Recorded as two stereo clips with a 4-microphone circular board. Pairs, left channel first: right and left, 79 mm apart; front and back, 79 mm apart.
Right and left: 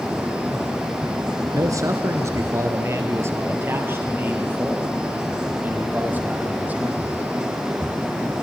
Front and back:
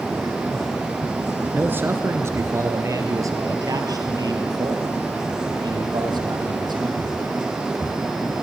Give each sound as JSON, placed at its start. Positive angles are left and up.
{"t": 1.5, "sound": "a man speaking", "azimuth_deg": 120, "distance_m": 2.0}